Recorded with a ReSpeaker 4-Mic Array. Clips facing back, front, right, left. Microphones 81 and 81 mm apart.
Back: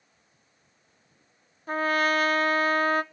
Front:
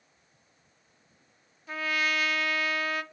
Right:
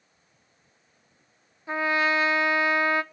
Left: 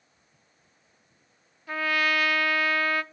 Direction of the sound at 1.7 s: 150° right.